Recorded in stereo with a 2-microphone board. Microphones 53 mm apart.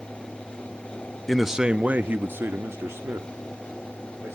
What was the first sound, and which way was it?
A man speaking, 5° left (ahead or behind).